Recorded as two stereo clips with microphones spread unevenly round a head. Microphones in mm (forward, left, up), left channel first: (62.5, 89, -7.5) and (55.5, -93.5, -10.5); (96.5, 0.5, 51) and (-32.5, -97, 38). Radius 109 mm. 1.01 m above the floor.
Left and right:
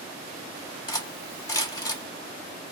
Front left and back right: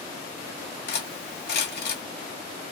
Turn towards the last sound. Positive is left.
turn(degrees=15)